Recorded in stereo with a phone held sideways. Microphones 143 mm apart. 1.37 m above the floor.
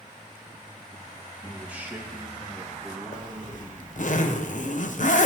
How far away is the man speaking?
About 1.6 m.